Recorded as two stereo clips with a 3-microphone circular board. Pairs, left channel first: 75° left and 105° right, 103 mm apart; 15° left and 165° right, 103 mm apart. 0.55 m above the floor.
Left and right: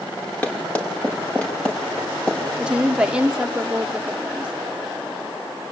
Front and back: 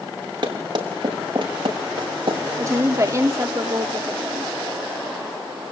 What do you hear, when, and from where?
0.4 s running footsteps: 150° left, 9 m; by 2.4 s 155° left, 8 m
2.6 s a woman speaking: 170° right, 1.1 m